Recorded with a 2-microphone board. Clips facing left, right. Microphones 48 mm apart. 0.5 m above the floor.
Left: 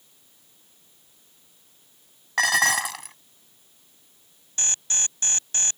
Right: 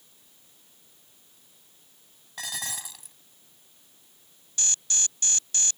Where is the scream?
I don't hear a scream.